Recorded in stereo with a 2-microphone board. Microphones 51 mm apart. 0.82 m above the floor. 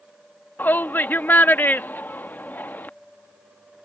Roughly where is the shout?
Left.